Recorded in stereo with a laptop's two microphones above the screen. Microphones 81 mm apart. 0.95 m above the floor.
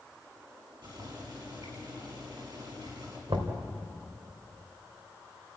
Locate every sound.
0.8 s boiling: 60° right (ahead or behind), 5.5 m
3.3 s knocking: 80° right, 2.5 m